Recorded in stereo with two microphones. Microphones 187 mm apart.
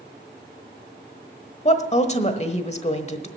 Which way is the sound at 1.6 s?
35° left (ahead or behind).